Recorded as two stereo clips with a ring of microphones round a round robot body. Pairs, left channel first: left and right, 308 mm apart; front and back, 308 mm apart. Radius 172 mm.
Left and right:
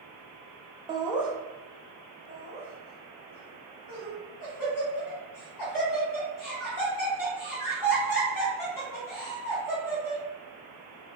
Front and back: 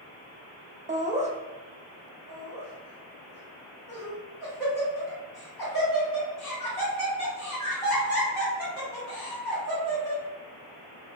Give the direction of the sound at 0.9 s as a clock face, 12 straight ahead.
5 o'clock.